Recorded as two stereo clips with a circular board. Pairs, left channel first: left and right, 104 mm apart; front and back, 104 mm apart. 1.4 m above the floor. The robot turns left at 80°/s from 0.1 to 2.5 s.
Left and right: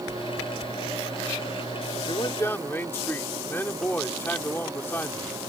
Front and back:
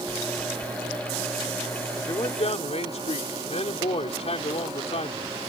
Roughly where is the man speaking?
Ahead left.